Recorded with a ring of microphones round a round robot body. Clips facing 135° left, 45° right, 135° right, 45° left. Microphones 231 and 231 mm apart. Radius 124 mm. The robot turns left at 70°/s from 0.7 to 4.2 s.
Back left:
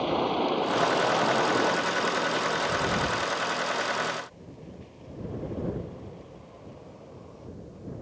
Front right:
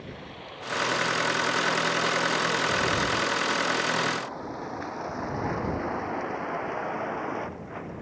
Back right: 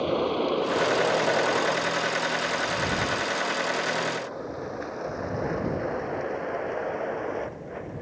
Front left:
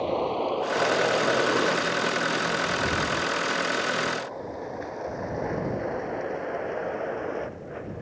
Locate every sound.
0.0 s a vehicle: 150° left; by 8.0 s 40° right